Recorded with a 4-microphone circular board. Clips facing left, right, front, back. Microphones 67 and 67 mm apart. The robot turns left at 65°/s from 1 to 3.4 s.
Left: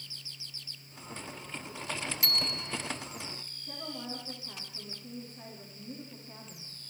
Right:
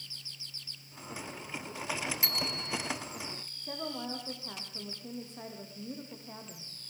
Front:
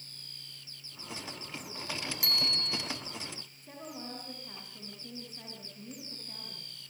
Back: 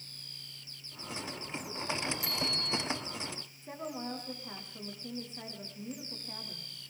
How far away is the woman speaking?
About 8.5 m.